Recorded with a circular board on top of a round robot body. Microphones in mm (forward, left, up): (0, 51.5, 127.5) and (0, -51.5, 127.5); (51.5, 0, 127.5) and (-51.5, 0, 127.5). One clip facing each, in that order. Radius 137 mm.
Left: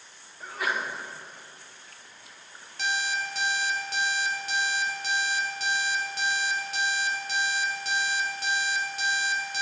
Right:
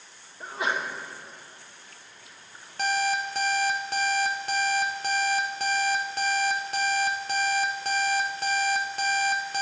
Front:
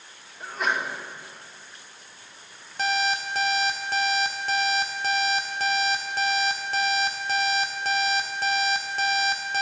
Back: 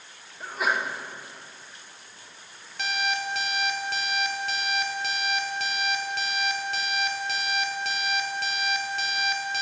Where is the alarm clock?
50° right, 0.6 m.